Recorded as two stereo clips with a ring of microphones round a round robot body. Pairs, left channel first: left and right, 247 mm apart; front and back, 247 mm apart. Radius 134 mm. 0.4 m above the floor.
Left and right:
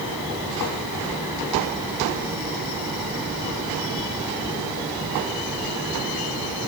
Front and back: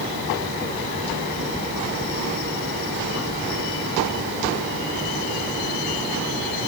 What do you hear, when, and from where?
Only background noise.